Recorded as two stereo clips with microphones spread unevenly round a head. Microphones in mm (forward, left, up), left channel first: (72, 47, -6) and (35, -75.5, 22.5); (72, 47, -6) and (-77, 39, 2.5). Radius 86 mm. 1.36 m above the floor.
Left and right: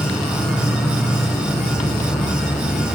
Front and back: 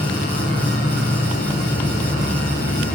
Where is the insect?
15° right, 4 m.